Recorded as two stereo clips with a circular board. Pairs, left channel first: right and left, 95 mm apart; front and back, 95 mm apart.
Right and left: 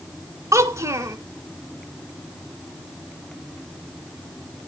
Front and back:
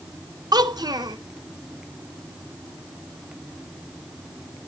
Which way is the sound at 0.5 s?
145° left.